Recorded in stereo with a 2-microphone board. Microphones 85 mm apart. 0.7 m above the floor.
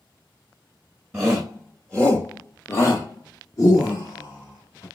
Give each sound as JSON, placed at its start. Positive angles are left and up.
{"t": 1.1, "sound": "a shout", "side_deg": -10, "distance_m": 0.8}